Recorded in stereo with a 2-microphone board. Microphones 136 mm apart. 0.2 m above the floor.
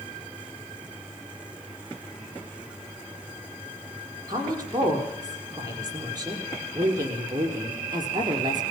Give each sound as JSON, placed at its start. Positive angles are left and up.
{"t": 4.3, "sound": "a woman speaking", "side_deg": -30, "distance_m": 8.0}